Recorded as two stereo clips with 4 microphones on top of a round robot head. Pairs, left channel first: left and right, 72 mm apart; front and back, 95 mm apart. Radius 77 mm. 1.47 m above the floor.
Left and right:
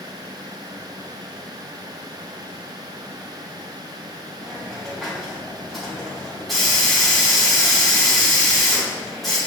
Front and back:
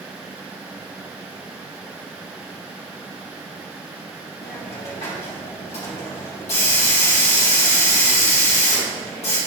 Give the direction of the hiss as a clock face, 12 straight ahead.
12 o'clock.